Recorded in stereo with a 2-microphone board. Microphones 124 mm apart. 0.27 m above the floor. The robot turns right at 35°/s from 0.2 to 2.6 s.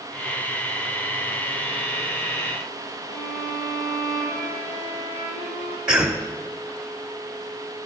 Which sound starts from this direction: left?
A violin, at 3.1 s.